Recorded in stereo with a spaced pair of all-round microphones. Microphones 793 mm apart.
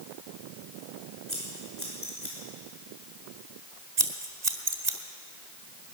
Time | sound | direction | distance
1.3 | scissors | 15° left (ahead or behind) | 6 m
4.0 | scissors | 60° right (ahead or behind) | 1.8 m